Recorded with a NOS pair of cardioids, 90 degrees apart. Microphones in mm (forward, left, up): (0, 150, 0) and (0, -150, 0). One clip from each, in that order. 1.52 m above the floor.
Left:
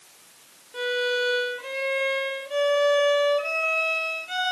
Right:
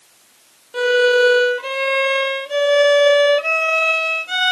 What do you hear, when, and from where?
0.7 s a violin: 50° right, 0.9 m